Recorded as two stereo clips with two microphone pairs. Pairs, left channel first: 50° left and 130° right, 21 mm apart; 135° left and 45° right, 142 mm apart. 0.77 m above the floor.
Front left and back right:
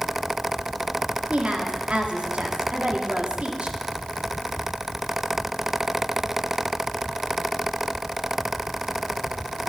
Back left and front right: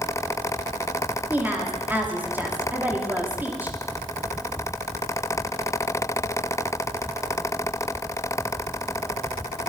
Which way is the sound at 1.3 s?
120° right.